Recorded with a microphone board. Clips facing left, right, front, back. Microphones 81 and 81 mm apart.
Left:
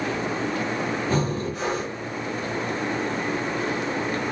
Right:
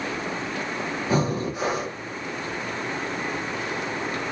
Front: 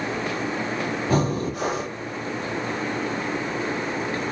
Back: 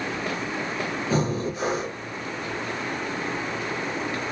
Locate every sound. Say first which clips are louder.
1.1 s breathing: right 1 dB, front 2 dB; 10° right, 1.1 m